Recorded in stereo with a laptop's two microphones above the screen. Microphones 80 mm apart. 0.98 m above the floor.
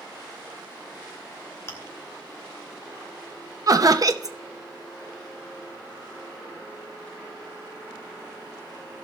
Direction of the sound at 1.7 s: 30° left (ahead or behind).